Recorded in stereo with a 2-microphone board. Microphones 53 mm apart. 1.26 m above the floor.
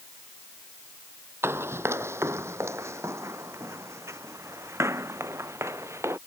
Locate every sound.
1.4 s running footsteps: 45° right (ahead or behind); by 6.2 s 55° right (ahead or behind)